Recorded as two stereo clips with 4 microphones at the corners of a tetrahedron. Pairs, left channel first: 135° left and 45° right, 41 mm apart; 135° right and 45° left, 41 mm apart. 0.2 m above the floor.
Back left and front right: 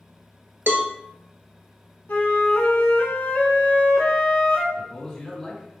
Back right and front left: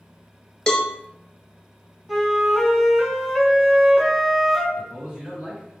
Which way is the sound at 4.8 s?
65° left.